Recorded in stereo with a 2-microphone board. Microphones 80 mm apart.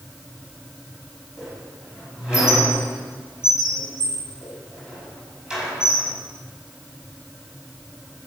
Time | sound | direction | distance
1.4 | a squeak | 10° right (ahead or behind) | 4.5 m